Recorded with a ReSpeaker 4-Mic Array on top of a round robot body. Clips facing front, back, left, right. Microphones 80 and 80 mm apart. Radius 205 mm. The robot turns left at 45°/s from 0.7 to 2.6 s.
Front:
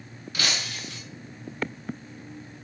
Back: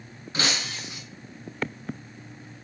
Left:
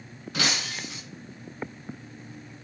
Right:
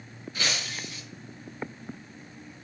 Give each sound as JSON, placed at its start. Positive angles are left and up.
{"t": 0.3, "sound": "breaking glass", "azimuth_deg": 115, "distance_m": 3.5}